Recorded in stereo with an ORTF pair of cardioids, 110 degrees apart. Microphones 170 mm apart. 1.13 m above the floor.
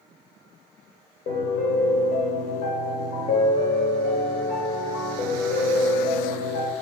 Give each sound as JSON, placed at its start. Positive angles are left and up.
{"t": 1.3, "sound": "a piano", "azimuth_deg": 60, "distance_m": 2.5}